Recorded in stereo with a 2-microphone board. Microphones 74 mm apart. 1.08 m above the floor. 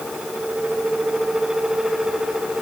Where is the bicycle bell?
No bicycle bell in this recording.